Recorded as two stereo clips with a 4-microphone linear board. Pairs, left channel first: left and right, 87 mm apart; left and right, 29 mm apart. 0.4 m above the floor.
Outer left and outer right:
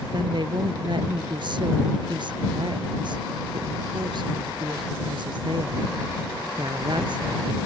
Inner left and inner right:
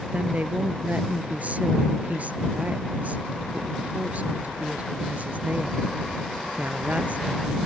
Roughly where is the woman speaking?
Right.